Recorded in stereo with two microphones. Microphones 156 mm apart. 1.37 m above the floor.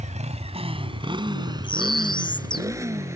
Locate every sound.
0.0 s a motorcycle: 55° right (ahead or behind); by 3.2 s 20° right (ahead or behind)
1.6 s a bird: 35° left (ahead or behind)